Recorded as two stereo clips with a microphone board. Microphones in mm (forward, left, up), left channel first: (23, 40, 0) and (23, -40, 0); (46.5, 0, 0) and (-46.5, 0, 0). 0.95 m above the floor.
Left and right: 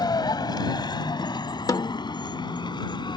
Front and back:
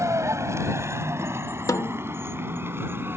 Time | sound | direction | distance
0.0 | a vehicle | 120° left | ?
1.7 | a snare drum | 55° left | ?